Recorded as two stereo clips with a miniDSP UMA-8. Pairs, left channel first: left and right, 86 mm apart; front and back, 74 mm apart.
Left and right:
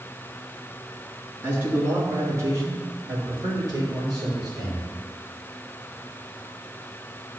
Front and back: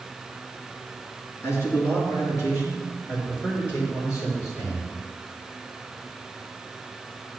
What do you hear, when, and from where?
1.4 s a man speaking: 40° right, 2.5 m; by 4.9 s 50° right, 5 m